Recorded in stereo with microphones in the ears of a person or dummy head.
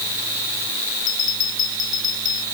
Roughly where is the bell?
Left.